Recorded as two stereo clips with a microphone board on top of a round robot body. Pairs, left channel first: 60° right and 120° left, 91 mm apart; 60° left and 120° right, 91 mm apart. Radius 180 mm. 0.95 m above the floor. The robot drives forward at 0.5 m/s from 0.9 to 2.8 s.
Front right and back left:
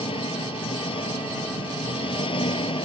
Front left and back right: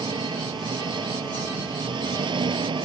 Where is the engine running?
80° right; by 2.9 s 85° right.